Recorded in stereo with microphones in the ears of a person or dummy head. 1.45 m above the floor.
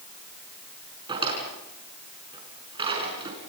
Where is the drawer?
30° right (ahead or behind), 5 m.